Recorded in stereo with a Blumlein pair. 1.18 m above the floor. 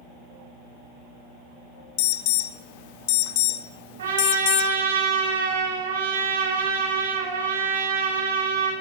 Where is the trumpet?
60° right, 5 m.